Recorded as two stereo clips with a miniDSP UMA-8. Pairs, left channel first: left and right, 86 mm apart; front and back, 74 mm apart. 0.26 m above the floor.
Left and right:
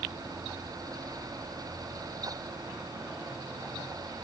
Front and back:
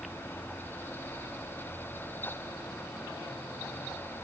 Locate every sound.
Only background noise.